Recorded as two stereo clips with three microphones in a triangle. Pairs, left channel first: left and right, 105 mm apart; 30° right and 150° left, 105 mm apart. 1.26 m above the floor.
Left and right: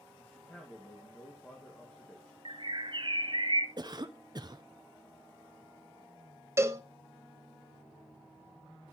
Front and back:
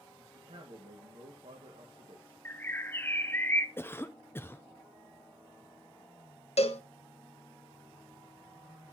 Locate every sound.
0.2 s a man speaking: 160° left, 1.7 m
2.5 s a bird: 95° right, 0.6 m
3.8 s a cough: 90° right, 0.5 m
6.6 s a cowbell: 25° right, 0.9 m